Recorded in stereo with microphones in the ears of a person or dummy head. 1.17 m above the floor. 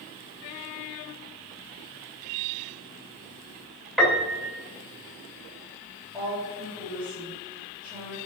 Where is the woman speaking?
5° right (ahead or behind), 3 m.